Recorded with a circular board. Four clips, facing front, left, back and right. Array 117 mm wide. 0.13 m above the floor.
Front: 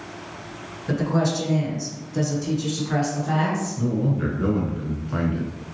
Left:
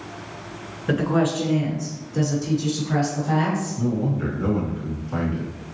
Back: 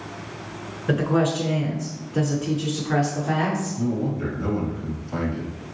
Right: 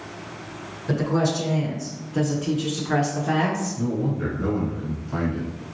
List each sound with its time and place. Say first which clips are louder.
0.9 s a woman speaking: left 2 dB, back 2 dB; 125° left, 1.3 m; by 3.8 s 100° right, 1.6 m
3.8 s a man speaking: left 1 dB, front 1 dB; 10° left, 1.5 m